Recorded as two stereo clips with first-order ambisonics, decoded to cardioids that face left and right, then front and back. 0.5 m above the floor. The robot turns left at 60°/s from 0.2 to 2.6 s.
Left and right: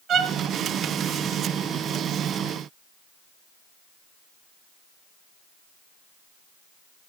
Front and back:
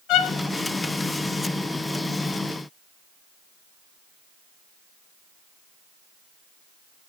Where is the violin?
35° right, 0.7 m; by 0.3 s 40° right, 0.7 m.